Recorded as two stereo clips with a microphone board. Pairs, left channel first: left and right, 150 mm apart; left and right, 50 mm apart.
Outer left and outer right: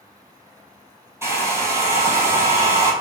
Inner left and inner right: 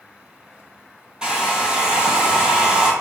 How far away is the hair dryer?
About 0.8 m.